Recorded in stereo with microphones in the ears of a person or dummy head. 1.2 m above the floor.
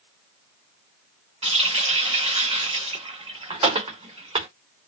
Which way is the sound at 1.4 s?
25° right (ahead or behind).